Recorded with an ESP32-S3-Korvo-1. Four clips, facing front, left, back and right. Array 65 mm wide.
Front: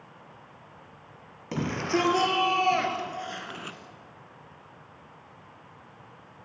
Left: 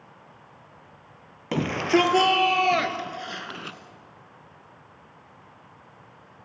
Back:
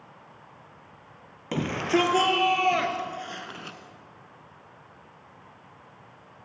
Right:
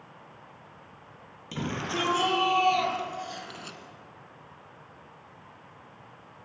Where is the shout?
105° left, 3 m; by 3.8 s 70° left, 1.3 m.